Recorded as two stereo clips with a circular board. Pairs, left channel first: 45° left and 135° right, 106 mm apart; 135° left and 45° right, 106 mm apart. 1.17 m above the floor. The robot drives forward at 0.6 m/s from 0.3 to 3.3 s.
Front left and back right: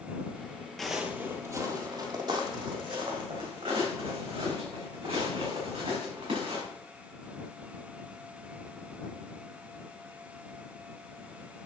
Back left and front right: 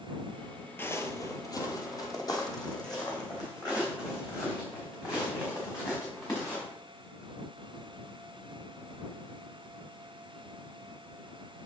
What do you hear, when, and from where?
0.8 s footsteps: 130° left, 1.2 m; by 6.6 s 170° right, 5.5 m